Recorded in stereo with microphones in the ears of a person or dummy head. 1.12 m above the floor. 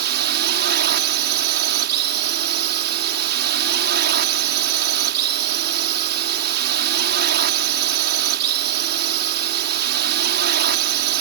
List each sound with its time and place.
0.0 s a drone: 55° right (ahead or behind)